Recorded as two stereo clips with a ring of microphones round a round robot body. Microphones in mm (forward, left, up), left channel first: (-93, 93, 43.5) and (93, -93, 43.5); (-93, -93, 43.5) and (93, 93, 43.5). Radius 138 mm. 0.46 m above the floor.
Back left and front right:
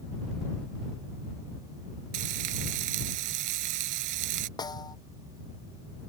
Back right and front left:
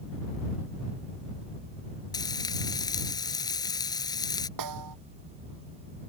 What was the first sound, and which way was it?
Frying, 60° right.